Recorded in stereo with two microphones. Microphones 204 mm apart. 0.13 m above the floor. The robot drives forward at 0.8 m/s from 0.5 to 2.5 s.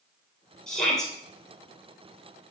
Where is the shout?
5° left (ahead or behind), 3 m; by 1.1 s centre (ahead or behind), 3.5 m.